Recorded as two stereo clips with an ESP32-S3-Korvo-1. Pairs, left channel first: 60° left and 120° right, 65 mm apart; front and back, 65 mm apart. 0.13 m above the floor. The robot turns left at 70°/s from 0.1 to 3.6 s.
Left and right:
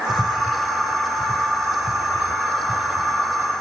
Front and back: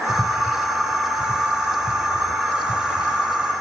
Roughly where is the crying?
No crying in this recording.